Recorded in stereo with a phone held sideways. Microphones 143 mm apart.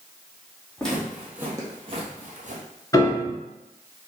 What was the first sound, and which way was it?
Footsteps, 10° left (ahead or behind).